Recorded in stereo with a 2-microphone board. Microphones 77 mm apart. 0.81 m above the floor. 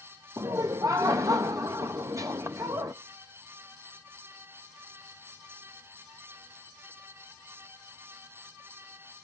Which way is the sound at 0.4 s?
45° right (ahead or behind).